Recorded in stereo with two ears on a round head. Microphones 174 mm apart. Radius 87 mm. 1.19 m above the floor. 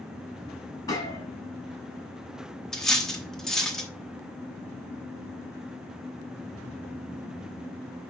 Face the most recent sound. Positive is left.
turn(degrees=5)  # may be behind; listen again after turning